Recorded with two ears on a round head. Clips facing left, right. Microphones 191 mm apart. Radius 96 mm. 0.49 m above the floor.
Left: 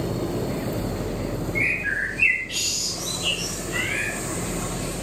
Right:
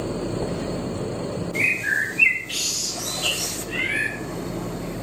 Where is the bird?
65° right (ahead or behind), 4.5 m.